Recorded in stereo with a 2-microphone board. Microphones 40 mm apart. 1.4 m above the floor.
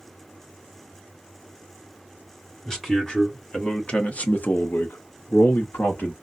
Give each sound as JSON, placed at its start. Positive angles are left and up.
{"t": 2.6, "sound": "a man speaking", "side_deg": 10, "distance_m": 1.8}